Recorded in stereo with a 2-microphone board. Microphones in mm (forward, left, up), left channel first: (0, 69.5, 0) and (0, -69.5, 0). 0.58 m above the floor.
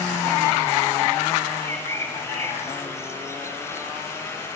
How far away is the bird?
About 6 m.